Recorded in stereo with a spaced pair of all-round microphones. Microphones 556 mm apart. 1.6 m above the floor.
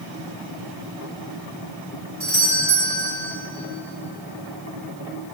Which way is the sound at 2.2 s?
65° right (ahead or behind).